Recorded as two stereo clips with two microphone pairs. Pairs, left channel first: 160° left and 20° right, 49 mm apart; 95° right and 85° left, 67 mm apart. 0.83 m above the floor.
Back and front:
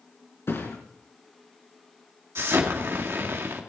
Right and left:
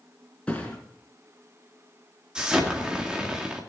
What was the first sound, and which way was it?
A thud, 170° right.